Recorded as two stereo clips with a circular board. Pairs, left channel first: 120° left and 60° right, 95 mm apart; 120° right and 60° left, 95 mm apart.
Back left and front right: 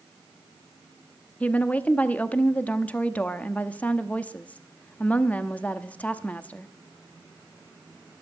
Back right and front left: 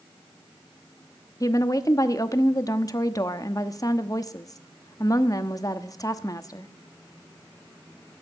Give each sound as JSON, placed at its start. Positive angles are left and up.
{"t": 1.4, "sound": "a woman speaking", "azimuth_deg": -170, "distance_m": 0.8}